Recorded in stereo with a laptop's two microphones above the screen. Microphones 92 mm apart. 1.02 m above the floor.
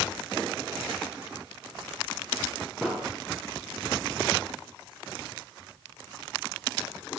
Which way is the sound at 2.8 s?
10° right (ahead or behind).